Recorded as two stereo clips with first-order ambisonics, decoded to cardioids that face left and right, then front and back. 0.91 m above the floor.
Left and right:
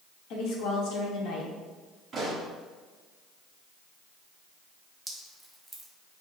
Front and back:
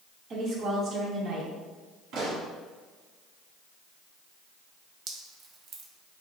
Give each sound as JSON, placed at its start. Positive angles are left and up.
{"t": 0.3, "sound": "a woman speaking", "azimuth_deg": 120, "distance_m": 1.0}
{"t": 2.1, "sound": "a pop", "azimuth_deg": -160, "distance_m": 1.5}
{"t": 5.1, "sound": "dripping", "azimuth_deg": 180, "distance_m": 0.6}